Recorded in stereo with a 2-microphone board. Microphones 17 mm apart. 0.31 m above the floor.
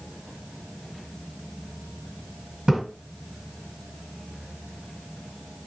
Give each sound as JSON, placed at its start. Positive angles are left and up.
{"t": 2.7, "sound": "a splash", "side_deg": -50, "distance_m": 2.5}